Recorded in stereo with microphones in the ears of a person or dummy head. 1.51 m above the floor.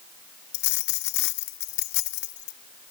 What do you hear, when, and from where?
0.5 s a dropped coin: 65° left (ahead or behind)